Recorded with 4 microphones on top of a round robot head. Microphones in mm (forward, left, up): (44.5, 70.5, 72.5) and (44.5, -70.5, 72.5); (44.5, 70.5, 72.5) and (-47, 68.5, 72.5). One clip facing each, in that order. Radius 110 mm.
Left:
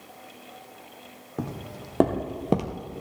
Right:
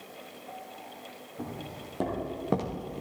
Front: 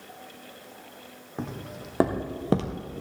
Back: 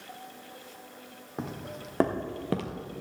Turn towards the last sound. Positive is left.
turn(degrees=-35)